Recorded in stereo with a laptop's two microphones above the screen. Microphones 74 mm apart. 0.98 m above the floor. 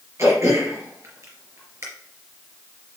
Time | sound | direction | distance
0.2 | throat clearing | 35° right (ahead or behind) | 2.5 m